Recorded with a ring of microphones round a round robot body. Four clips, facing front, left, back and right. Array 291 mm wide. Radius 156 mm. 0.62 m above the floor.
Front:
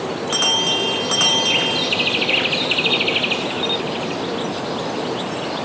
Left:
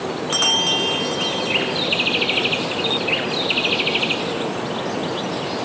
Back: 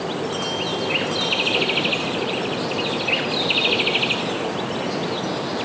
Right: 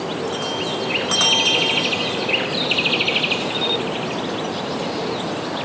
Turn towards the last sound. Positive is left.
No sound to turn to.